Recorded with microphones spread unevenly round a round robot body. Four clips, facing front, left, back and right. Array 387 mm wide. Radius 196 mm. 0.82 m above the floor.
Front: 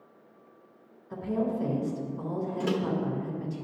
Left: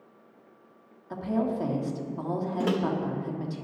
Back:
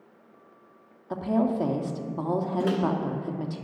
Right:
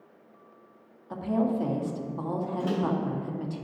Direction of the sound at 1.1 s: 170° left.